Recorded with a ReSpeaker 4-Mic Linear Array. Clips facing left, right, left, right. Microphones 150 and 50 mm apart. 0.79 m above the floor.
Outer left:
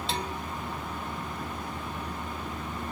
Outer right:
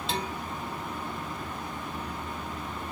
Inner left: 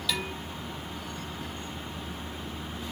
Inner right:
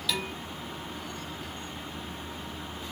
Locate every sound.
0.1 s dishes clattering: centre (ahead or behind), 2 m